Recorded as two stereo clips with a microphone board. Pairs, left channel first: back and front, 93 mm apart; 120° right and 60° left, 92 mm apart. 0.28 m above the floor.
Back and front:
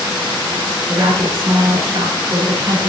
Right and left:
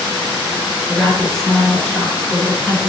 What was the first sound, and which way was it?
A woman speaking, 40° right.